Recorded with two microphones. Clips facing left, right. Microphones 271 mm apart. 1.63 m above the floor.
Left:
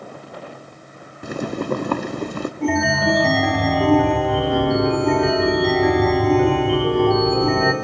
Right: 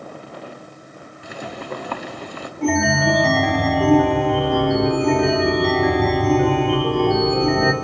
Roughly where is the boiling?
Left.